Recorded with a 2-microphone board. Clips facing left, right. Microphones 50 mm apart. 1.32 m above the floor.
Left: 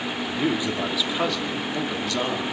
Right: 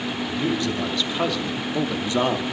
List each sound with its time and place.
0.3 s a man speaking: 20° left (ahead or behind), 3 m; by 2.4 s 30° right (ahead or behind), 2.5 m